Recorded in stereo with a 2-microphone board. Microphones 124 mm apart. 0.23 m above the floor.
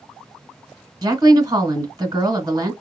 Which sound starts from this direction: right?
A woman speaking, at 1.0 s.